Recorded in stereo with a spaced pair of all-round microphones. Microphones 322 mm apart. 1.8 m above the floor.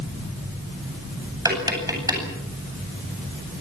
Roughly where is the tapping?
Centre.